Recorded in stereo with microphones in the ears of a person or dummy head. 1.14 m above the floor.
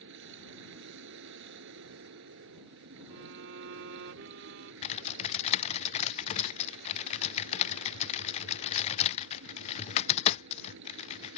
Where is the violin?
70° right (ahead or behind).